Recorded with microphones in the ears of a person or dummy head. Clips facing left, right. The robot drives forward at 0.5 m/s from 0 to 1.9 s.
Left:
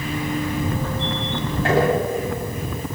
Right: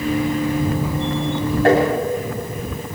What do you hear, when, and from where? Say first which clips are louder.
1.6 s tapping: right 5 dB; 55° right (ahead or behind), 8.5 m